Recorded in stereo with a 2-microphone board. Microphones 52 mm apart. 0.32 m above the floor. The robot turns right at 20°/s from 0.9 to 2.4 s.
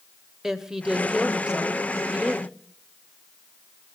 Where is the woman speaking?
10° right (ahead or behind), 1.3 m; by 2.6 s 15° right (ahead or behind), 1.3 m.